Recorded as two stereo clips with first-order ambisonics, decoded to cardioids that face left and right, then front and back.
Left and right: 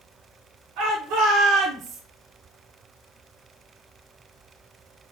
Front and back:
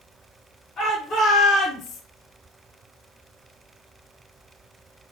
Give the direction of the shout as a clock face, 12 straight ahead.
2 o'clock.